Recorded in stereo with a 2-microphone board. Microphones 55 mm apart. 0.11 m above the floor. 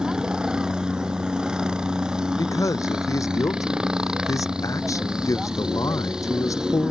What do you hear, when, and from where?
0.0 s a helicopter: 15° right (ahead or behind)
2.4 s a man speaking: 75° left (ahead or behind)